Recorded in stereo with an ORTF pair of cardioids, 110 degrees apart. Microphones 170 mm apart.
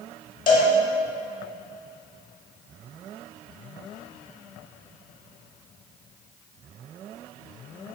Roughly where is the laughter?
I don't hear laughter.